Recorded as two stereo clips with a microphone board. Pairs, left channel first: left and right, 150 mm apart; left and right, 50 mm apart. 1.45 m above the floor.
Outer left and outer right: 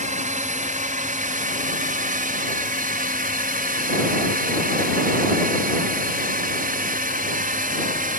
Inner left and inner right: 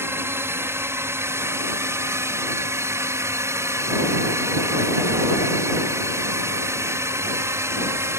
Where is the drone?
55° right (ahead or behind); by 8.2 s 65° right (ahead or behind).